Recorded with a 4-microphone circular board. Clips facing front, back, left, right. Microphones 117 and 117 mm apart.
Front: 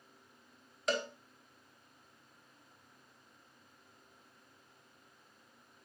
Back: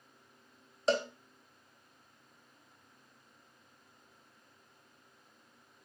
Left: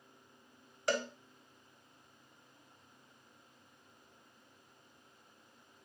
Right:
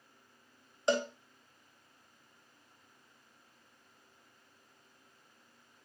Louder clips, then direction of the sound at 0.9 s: Back 5 dB, right 4 dB; 140° right.